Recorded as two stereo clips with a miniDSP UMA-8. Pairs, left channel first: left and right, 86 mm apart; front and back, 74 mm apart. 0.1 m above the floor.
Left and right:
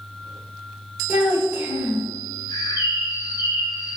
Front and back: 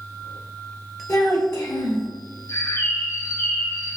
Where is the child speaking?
35° right, 1.5 m.